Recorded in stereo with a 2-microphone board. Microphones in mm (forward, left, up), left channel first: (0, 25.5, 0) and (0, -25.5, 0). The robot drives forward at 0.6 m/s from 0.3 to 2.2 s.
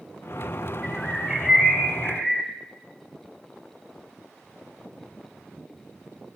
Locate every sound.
0.8 s a bird: 10° right (ahead or behind), 0.5 m; by 2.5 s 5° right (ahead or behind), 1.4 m